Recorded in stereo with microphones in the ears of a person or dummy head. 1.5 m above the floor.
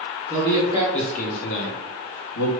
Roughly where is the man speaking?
Centre.